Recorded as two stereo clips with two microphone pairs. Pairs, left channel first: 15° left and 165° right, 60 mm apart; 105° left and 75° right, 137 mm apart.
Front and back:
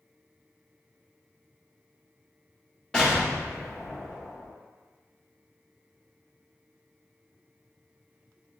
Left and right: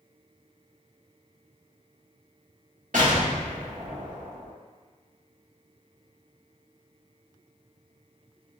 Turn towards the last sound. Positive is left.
turn(degrees=-60)